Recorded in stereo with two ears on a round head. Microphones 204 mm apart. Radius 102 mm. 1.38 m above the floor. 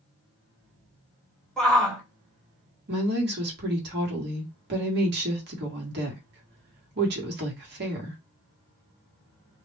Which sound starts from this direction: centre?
A shout, at 1.6 s.